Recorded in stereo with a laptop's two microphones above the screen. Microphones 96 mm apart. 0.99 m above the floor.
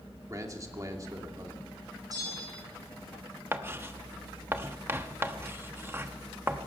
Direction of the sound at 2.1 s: 40° right (ahead or behind).